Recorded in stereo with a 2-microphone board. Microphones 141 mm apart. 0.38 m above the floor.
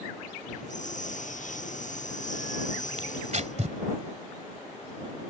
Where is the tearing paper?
55° right (ahead or behind).